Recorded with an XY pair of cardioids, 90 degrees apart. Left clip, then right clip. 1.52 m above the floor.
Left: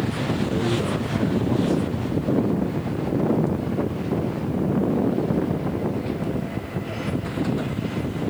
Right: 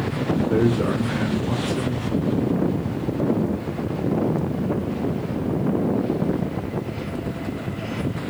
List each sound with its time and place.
0.5 s a man speaking: 65° right, 2.5 m